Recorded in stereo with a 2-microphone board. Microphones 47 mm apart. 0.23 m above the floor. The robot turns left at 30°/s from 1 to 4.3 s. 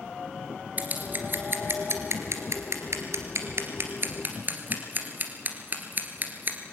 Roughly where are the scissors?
Right.